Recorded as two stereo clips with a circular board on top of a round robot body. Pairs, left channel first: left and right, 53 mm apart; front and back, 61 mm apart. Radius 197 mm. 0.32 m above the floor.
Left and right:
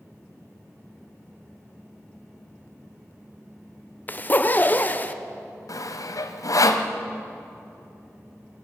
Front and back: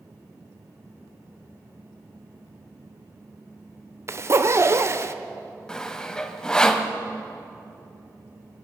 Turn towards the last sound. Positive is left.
turn(degrees=80)